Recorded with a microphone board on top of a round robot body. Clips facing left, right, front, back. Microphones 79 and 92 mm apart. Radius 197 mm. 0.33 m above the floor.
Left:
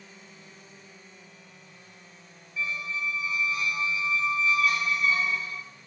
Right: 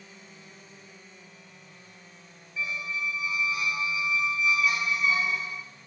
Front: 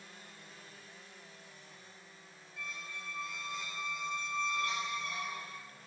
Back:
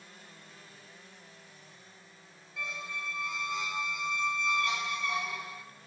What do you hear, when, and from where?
2.6 s a squeak: 165° right, 0.9 m